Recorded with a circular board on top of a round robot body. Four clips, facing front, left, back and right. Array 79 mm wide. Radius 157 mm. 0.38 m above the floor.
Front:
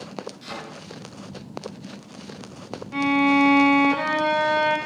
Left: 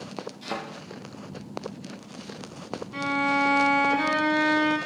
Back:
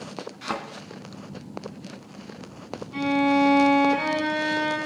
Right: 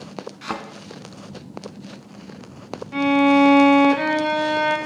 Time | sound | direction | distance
0.4 | a thud | 125° right | 1.3 m
2.9 | a violin | 60° right | 3 m